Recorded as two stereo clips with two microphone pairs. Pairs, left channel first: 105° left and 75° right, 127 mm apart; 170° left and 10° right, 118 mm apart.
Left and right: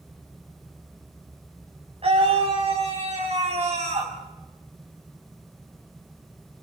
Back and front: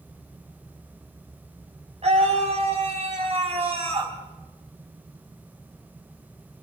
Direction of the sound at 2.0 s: 35° right.